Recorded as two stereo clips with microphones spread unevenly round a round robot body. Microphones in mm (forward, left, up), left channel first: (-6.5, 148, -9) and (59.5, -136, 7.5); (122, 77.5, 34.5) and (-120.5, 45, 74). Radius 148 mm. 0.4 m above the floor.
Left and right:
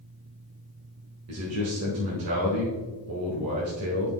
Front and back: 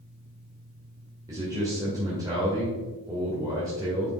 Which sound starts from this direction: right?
A man speaking, at 1.3 s.